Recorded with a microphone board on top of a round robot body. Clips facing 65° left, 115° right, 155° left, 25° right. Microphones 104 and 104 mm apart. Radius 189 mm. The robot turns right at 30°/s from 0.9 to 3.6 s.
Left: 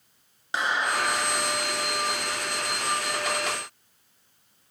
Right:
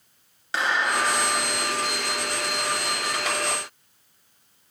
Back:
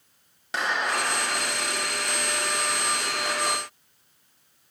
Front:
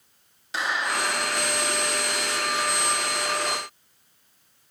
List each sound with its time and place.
0.5 s a clap: 140° left, 8.5 m; by 1.7 s 165° left, 8.5 m